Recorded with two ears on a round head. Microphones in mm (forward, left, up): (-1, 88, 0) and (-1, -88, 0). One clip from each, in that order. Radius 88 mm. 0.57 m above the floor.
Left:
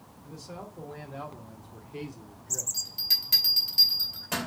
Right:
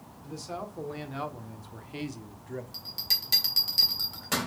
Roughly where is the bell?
Centre.